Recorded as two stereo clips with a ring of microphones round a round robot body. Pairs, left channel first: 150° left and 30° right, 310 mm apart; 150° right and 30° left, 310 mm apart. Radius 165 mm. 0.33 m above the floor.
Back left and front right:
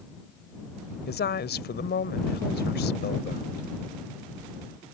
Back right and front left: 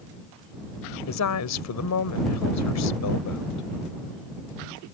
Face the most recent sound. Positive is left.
turn(degrees=-160)